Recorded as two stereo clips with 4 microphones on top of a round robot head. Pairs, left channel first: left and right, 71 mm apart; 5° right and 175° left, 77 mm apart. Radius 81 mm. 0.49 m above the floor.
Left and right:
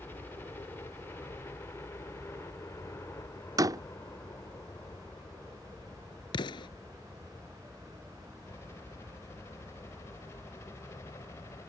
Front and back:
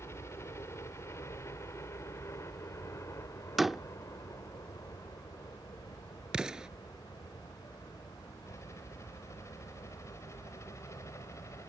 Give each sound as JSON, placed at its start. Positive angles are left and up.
{"t": 0.0, "sound": "a helicopter", "azimuth_deg": 35}
{"t": 3.6, "sound": "a door slam", "azimuth_deg": -100}
{"t": 6.3, "sound": "an explosion", "azimuth_deg": 95}